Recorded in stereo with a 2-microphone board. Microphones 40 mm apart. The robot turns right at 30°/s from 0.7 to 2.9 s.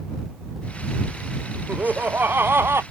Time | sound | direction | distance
1.7 | laughter | 140° right | ?